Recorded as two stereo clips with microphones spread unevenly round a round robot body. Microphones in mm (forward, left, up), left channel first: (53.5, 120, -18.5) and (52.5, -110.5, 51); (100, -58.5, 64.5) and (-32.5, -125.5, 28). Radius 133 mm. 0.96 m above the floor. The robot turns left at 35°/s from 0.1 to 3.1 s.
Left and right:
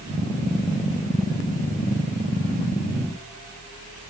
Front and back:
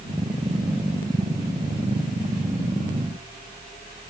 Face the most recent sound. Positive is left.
No sound to turn to.